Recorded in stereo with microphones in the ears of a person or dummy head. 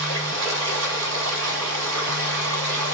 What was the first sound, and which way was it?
Running water, 90° right.